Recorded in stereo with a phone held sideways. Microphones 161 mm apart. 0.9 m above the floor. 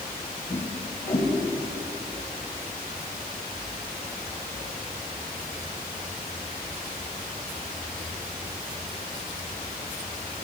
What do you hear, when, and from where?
0.5 s a whoosh: 15° left (ahead or behind), 6 m